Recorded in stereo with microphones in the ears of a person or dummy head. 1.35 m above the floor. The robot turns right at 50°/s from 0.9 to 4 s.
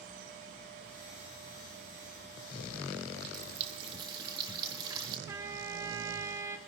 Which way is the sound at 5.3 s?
20° right (ahead or behind).